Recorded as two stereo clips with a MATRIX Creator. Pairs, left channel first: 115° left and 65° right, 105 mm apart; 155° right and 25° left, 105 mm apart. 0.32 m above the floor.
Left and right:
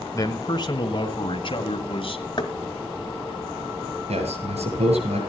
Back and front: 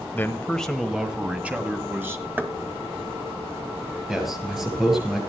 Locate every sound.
0.1 s a man speaking: 145° left, 1.4 m; by 2.2 s 85° left, 2.5 m
2.4 s knocking: 85° left, 1.7 m
4.1 s a man speaking: 65° right, 6.5 m